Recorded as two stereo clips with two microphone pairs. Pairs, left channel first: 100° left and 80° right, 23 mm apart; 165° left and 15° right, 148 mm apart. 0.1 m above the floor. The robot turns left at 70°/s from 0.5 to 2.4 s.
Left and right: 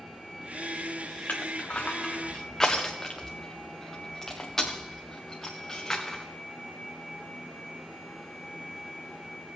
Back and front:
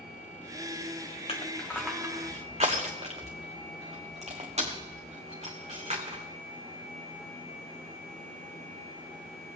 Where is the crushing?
110° left, 1.5 m; by 6.2 s 35° left, 1.5 m.